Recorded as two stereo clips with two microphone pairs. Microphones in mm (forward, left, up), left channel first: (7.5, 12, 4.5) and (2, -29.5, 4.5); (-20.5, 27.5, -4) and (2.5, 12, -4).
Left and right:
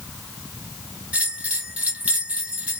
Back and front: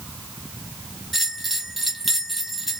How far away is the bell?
About 0.9 m.